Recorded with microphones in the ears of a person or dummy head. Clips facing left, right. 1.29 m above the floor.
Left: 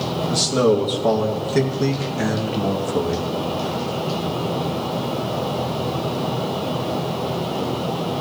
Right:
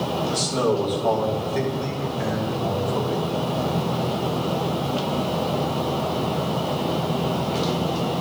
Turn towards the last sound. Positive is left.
turn(degrees=80)